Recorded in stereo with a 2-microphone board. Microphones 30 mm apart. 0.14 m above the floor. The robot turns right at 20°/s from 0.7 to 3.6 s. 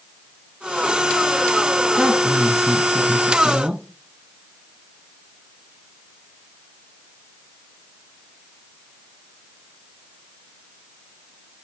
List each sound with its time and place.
2.0 s a woman speaking: 15° right (ahead or behind), 1.1 m; by 3.8 s 25° right (ahead or behind), 1.1 m